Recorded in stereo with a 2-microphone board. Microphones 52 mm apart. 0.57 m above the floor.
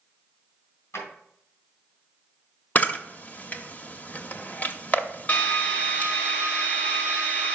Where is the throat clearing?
No throat clearing in this recording.